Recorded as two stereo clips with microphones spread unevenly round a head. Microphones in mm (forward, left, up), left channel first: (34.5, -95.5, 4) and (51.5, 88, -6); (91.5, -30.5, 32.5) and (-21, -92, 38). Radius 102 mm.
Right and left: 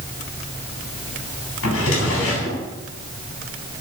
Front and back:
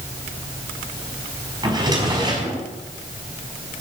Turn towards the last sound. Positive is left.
turn(degrees=-95)